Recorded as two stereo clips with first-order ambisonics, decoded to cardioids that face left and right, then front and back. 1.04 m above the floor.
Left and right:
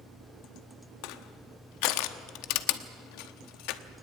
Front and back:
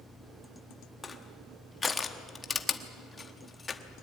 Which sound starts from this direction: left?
Crushing, at 1.0 s.